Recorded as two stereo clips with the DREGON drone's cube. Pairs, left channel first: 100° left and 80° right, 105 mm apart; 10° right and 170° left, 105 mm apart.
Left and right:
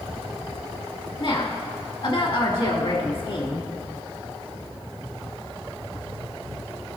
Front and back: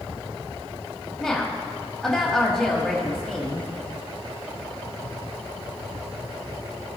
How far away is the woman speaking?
About 1.2 m.